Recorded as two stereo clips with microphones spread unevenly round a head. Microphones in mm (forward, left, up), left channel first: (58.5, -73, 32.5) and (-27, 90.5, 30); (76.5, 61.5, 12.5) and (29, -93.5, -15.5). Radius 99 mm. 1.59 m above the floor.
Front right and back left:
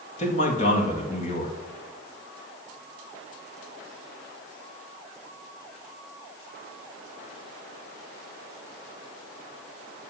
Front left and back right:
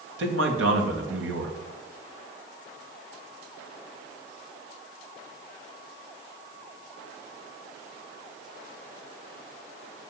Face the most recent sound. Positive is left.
turn(degrees=-120)